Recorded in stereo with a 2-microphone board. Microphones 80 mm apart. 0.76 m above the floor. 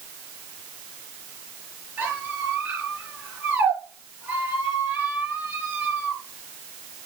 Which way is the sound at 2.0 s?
20° right (ahead or behind).